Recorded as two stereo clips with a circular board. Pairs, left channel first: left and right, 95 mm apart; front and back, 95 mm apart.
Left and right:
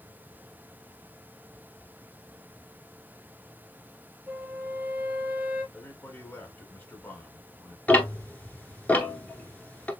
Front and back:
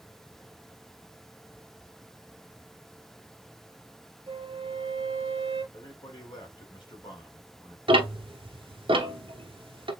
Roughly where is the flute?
Behind.